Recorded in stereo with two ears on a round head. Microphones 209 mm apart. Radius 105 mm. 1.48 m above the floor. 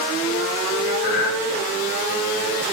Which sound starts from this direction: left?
Breathing, at 1.0 s.